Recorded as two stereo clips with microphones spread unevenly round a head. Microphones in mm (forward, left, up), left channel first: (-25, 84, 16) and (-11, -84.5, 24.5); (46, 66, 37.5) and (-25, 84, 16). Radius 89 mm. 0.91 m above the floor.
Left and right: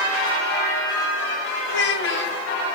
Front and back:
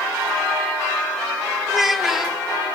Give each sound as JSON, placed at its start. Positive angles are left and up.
{"t": 1.7, "sound": "a child speaking", "azimuth_deg": 85, "distance_m": 1.1}